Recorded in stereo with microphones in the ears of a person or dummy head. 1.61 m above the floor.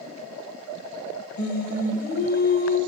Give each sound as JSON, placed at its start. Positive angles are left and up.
{"t": 1.4, "sound": "singing", "side_deg": 55, "distance_m": 1.6}